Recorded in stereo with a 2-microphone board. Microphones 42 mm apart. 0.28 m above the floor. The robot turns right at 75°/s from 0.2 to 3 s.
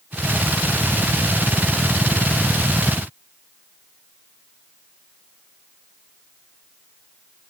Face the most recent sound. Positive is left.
No sound to turn to.